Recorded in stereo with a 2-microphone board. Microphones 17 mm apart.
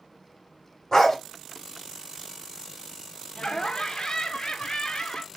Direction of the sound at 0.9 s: 30° left (ahead or behind).